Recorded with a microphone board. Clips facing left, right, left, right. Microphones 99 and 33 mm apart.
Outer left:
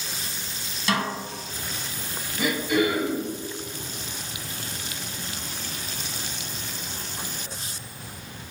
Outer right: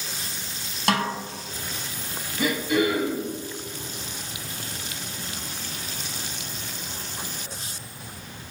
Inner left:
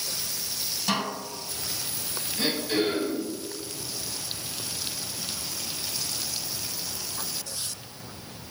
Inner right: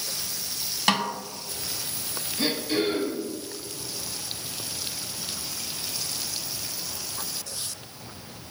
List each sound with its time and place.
0.9 s a snare drum: 60° right (ahead or behind), 0.5 m
2.4 s throat clearing: 10° left (ahead or behind), 1.8 m